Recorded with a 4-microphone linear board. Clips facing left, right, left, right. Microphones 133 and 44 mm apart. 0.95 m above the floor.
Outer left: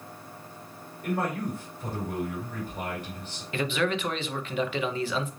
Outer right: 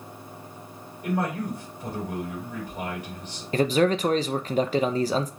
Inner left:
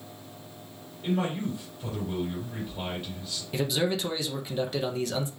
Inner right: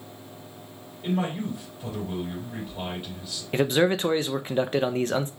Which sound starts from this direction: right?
A man speaking, at 3.5 s.